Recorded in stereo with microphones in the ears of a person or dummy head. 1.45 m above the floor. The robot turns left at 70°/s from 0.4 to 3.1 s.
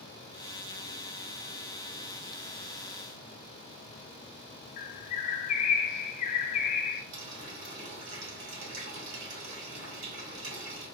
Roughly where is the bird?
Left.